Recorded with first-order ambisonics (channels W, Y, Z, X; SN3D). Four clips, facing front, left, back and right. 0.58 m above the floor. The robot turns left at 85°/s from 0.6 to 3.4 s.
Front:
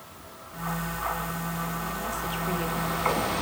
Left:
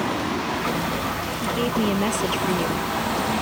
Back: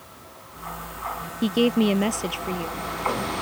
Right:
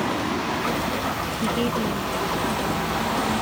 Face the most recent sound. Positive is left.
turn(degrees=25)